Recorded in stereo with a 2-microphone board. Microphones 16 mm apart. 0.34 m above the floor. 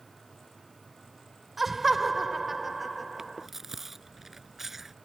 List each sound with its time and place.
1.6 s laughter: 15° right (ahead or behind)
3.2 s chewing: 20° right (ahead or behind)